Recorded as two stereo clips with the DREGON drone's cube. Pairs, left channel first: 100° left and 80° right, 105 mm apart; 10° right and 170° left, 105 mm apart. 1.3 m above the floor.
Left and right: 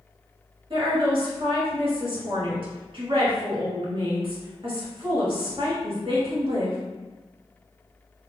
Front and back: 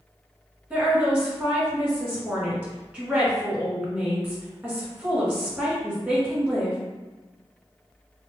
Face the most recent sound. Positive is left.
turn(degrees=-115)